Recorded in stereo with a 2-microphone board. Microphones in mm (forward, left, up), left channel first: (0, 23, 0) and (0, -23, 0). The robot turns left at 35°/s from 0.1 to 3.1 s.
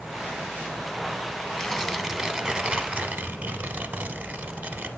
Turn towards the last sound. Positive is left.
turn(degrees=-45)